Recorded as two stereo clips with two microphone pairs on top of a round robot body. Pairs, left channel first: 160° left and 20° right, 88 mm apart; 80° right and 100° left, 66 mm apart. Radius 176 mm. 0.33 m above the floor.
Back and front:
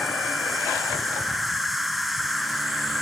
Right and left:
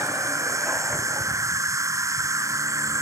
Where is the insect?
65° left.